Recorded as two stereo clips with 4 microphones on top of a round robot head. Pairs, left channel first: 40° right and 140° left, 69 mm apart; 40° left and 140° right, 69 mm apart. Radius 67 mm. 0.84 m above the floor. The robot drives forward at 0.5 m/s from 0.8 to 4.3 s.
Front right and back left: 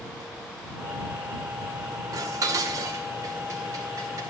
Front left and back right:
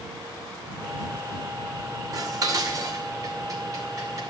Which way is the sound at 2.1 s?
175° right.